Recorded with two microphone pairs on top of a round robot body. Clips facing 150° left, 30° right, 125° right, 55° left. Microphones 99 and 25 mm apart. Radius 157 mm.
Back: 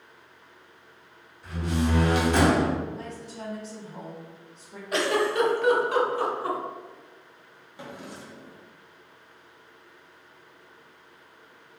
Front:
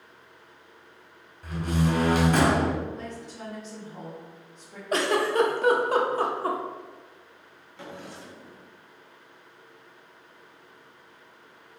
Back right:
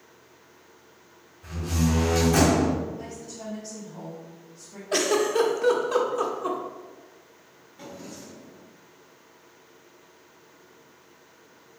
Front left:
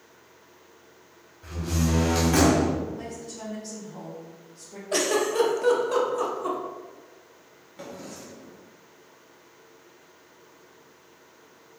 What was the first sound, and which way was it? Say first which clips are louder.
A door slam: front 1 dB, back right 1 dB; 10° left.